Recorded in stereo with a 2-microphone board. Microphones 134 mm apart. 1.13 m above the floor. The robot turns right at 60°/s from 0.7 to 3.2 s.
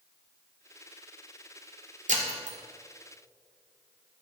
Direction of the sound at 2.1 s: 80° right.